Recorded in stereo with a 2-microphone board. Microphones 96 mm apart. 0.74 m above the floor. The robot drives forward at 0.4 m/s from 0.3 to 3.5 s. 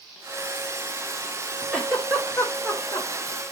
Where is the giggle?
5° left (ahead or behind), 1.7 m.